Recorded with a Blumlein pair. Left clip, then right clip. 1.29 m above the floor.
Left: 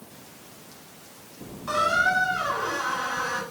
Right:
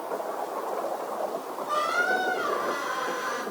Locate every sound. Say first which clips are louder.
1.7 s a squeak: left 3 dB; 60° left, 7 m